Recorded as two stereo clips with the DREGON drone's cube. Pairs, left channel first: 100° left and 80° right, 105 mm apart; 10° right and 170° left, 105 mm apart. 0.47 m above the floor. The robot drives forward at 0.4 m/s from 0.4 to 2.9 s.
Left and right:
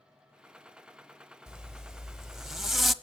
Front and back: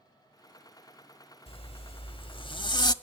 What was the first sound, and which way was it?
A zipper, 5° left.